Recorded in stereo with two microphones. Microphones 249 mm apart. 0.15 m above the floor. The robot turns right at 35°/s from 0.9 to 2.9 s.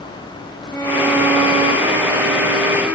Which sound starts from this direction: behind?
A violin, at 0.7 s.